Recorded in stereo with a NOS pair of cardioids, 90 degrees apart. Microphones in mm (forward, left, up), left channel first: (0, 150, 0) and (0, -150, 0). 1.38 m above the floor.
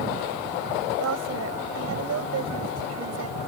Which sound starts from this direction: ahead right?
A woman speaking, at 1.0 s.